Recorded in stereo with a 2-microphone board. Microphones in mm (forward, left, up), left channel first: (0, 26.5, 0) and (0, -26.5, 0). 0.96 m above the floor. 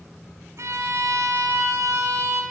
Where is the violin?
65° right (ahead or behind), 2.5 m.